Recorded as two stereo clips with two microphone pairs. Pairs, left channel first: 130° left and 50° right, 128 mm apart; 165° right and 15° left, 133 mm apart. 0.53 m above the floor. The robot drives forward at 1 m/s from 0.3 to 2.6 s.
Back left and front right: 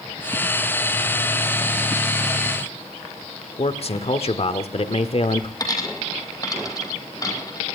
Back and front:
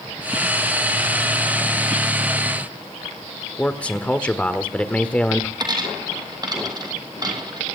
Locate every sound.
3.6 s a man speaking: 115° left, 1.3 m
5.6 s a dropped coin: 70° left, 2.5 m